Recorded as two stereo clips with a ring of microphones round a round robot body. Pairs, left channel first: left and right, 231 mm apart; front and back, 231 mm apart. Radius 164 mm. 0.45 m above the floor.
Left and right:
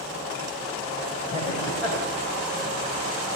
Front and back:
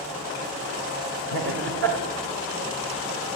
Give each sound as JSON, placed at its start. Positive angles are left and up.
{"t": 1.3, "sound": "laughter", "azimuth_deg": 160, "distance_m": 1.8}